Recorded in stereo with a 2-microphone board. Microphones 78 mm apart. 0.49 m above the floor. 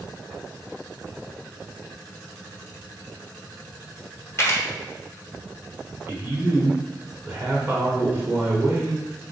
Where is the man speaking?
25° right (ahead or behind), 1.5 m.